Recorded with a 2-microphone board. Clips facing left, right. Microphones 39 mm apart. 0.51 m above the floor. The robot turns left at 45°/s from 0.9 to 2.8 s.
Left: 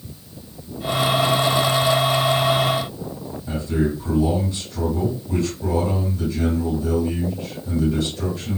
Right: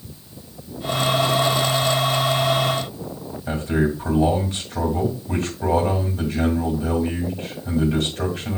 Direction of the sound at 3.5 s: 75° right (ahead or behind).